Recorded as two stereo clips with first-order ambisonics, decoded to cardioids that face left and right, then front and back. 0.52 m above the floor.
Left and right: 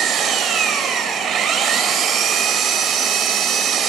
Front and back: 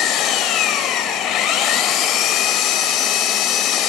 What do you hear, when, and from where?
0.0 s an engine running: 40° right, 0.9 m